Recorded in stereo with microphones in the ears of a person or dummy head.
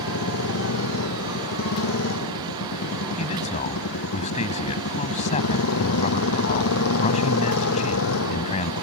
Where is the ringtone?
I don't hear a ringtone.